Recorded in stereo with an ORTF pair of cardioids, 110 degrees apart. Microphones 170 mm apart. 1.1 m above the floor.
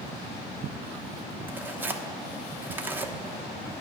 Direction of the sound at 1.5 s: 10° right.